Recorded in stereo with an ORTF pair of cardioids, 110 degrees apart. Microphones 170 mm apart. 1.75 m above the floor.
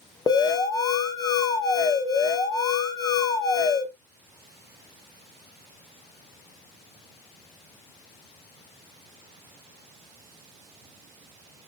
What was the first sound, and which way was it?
An alarm, 25° left.